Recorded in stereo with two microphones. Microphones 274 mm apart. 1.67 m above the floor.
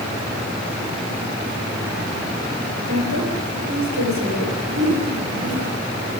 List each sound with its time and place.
2.9 s a woman speaking: 85° right, 7.5 m
4.7 s a whoosh: 60° right (ahead or behind), 8.5 m